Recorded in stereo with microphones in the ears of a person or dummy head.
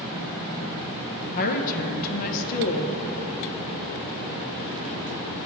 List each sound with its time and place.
1.4 s a woman speaking: 45° left (ahead or behind), 0.7 m